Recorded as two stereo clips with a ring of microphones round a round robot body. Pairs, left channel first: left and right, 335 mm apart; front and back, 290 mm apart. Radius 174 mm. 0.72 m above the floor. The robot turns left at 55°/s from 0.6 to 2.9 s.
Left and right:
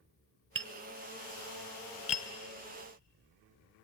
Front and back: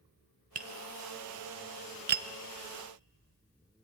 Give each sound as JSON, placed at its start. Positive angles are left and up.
{"t": 0.6, "sound": "tapping", "azimuth_deg": -125, "distance_m": 0.6}